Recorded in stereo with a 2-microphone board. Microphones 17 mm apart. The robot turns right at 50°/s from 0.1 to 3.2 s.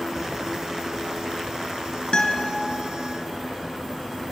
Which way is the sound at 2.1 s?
60° left (ahead or behind).